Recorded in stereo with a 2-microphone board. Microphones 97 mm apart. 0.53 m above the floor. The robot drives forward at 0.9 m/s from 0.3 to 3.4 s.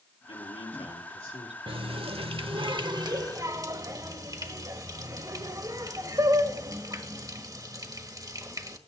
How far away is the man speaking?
About 6 m.